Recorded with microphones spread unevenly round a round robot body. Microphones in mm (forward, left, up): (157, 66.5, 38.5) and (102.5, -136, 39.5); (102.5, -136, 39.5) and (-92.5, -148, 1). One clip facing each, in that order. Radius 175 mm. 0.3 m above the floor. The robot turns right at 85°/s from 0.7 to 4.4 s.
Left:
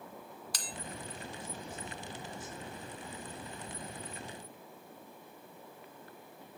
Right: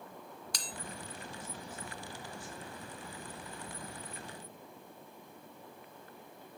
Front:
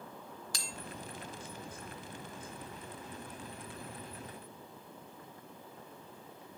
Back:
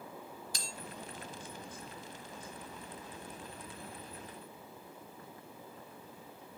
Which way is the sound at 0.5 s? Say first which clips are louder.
Even, even; 10° right.